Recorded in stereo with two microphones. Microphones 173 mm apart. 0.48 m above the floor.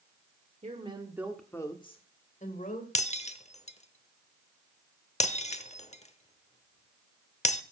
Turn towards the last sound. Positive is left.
turn(degrees=45)  # may be behind; listen again after turning